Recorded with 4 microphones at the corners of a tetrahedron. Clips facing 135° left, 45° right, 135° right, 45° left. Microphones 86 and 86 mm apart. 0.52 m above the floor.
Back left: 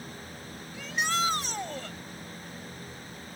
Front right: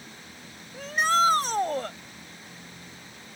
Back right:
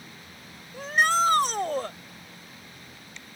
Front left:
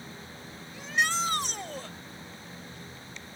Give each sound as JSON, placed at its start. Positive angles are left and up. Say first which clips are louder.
{"t": 0.7, "sound": "a shout", "louder": "front right 7 dB, back right 6 dB", "azimuth_deg": -90}